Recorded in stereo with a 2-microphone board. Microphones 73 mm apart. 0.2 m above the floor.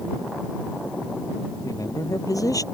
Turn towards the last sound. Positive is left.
turn(degrees=50)  # may be behind; listen again after turning